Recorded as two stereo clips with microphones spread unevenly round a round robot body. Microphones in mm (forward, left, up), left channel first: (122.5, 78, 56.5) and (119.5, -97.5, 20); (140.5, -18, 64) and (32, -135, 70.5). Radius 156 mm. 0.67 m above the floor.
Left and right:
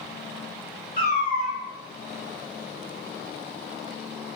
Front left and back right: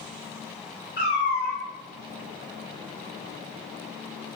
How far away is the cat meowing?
About 0.8 m.